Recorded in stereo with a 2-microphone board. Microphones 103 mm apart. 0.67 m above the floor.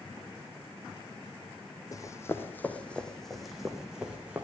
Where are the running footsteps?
35° left (ahead or behind), 1.2 m; by 4.4 s 10° right (ahead or behind), 2 m.